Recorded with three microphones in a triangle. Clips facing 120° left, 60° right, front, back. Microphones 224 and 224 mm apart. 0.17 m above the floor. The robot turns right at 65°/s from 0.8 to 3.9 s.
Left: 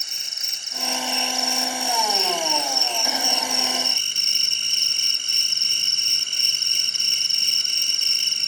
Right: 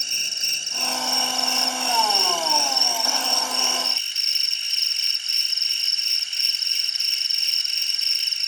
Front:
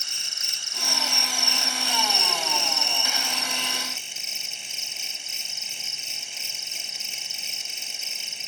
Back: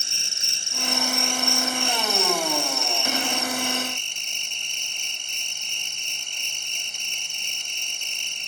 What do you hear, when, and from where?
0.0 s an insect: 120° right, 0.8 m; by 8.5 s 85° left, 0.8 m